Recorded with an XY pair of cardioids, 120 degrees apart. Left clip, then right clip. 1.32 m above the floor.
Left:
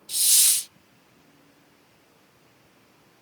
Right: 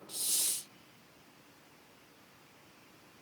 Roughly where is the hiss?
Left.